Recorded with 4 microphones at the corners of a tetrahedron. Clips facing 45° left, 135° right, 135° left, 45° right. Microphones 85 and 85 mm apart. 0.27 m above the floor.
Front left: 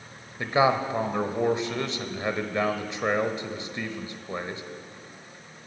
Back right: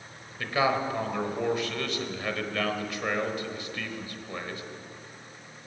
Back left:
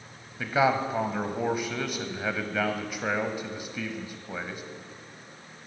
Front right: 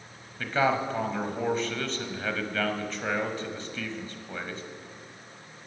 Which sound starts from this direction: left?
A man speaking, at 0.4 s.